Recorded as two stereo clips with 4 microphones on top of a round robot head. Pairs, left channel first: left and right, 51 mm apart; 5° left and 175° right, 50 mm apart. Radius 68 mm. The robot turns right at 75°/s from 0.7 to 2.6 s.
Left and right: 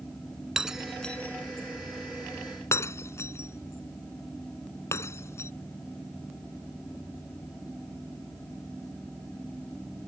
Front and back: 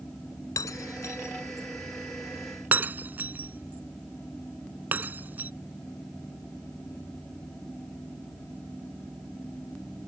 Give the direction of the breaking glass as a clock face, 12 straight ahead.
12 o'clock.